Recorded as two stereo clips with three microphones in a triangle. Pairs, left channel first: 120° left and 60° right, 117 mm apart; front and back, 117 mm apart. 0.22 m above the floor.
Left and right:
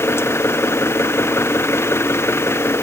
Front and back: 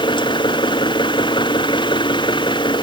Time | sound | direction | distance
0.0 | an engine running | 50° left | ?